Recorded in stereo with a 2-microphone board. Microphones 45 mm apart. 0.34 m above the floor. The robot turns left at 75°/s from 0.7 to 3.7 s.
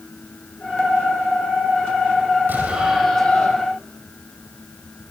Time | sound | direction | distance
2.5 | an explosion | 140° right | 5.5 m